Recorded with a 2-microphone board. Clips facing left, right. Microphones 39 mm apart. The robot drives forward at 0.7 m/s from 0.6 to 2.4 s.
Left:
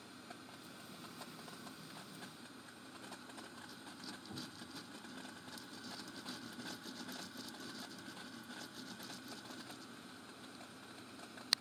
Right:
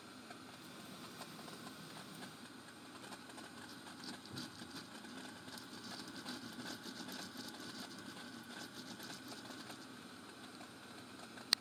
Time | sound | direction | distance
4.3 | a cupboard door | 80° left | 6 m